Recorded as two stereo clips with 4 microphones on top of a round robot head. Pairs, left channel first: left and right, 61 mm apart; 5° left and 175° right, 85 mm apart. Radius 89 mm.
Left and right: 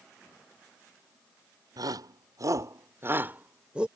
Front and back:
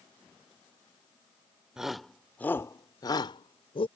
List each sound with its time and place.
1.8 s a shout: 95° right; by 3.9 s 15° right